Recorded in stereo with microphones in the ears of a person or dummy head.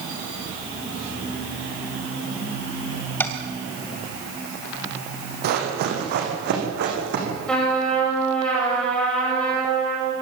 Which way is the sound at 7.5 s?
5° left (ahead or behind).